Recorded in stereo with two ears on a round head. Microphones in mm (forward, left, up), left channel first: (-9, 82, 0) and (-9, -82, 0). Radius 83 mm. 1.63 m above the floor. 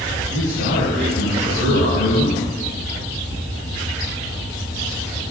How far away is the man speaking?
About 9 m.